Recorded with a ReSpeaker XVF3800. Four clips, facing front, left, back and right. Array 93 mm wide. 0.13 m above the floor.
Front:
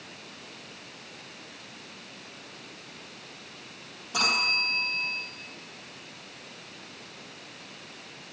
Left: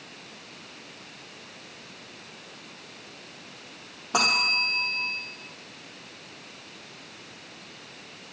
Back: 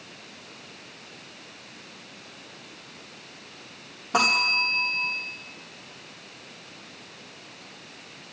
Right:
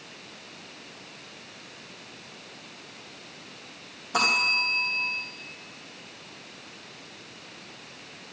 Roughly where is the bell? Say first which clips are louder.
Even, back 5 dB; behind left.